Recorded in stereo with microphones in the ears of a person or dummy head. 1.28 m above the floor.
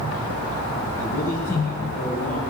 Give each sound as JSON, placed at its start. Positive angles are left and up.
{"t": 1.0, "sound": "a man speaking", "side_deg": 50, "distance_m": 7.0}